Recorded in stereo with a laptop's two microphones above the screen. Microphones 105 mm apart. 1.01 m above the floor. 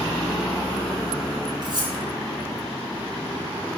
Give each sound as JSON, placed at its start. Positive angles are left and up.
{"t": 1.6, "sound": "cutlery clinking", "side_deg": -45, "distance_m": 1.2}